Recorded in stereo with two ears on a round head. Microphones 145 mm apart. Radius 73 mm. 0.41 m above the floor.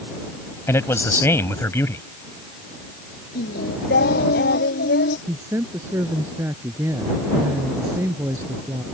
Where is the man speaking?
15° left (ahead or behind).